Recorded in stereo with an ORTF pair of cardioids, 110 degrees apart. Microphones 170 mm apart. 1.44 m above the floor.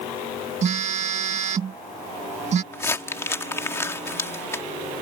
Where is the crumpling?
15° left.